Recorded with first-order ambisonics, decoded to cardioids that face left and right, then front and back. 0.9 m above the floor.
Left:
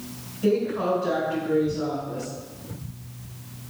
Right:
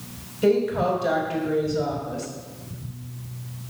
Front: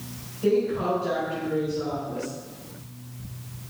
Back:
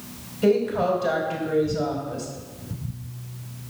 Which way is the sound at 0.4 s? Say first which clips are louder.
Right 3 dB, back 3 dB; 130° right.